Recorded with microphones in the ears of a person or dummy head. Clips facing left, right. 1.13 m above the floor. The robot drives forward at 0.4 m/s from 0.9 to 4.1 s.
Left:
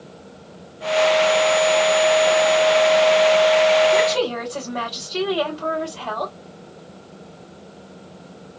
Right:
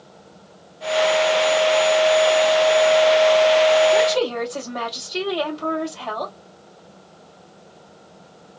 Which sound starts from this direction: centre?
A woman speaking, at 3.9 s.